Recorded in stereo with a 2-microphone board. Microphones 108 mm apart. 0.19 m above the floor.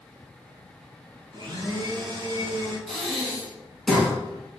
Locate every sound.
1.3 s a blender: 45° right (ahead or behind), 0.9 m
2.9 s breathing: 5° left (ahead or behind), 1.3 m